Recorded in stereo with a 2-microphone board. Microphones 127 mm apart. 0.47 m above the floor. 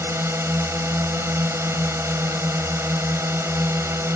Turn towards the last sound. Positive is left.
turn(degrees=-20)  # may be behind; listen again after turning